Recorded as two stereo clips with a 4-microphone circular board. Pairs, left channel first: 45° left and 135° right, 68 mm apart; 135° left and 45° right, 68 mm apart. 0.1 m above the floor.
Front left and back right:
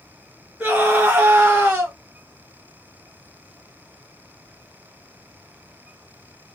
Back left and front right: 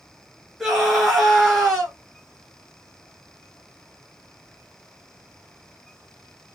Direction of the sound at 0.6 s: 130° right.